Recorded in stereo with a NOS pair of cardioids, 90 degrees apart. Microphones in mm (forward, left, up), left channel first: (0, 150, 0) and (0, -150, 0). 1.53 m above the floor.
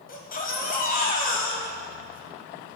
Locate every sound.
0.1 s a baby crying: 30° left, 1.1 m